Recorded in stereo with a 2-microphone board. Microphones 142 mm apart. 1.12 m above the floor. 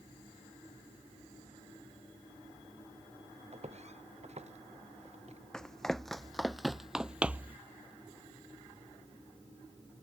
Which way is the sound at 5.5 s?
5° left (ahead or behind).